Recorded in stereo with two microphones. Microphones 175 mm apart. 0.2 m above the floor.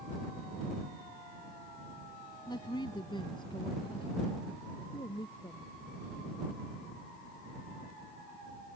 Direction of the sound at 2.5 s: 25° left (ahead or behind).